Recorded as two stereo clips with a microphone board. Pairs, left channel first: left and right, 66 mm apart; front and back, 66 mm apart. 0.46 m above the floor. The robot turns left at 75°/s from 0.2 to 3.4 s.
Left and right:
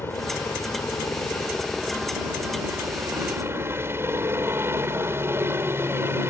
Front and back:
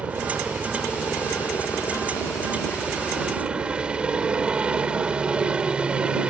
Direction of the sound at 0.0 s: 125° left.